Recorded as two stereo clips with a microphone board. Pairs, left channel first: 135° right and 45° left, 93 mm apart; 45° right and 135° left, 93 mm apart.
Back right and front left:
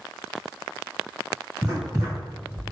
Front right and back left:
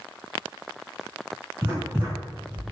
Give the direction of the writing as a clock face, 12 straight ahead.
9 o'clock.